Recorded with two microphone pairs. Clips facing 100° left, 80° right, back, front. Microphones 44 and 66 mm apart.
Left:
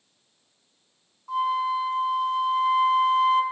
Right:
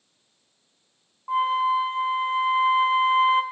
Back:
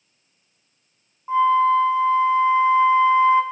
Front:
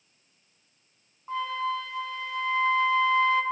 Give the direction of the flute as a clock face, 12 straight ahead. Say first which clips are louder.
Right 3 dB, back 13 dB; 4 o'clock.